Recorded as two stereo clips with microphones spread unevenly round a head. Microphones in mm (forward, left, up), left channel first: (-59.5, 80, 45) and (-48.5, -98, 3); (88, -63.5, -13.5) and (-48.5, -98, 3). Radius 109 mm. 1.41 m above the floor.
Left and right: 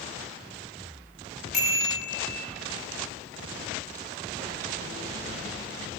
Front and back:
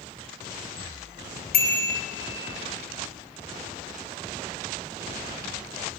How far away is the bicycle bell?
About 5.5 m.